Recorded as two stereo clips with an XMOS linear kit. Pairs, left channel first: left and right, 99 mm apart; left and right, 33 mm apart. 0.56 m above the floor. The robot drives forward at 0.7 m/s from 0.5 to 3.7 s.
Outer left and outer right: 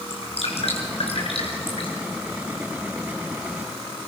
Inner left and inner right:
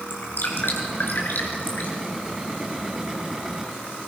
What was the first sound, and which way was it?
Dripping, 70° left (ahead or behind).